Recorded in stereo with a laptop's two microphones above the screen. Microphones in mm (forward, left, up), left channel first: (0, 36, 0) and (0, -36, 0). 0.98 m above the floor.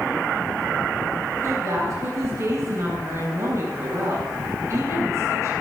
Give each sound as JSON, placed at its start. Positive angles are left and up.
{"t": 1.4, "sound": "a woman speaking", "side_deg": -40, "distance_m": 8.5}